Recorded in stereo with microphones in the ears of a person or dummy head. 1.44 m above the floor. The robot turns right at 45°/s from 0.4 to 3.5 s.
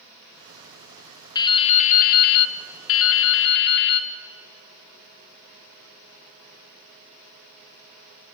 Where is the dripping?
25° left, 0.5 m; by 4.1 s 120° left, 0.5 m.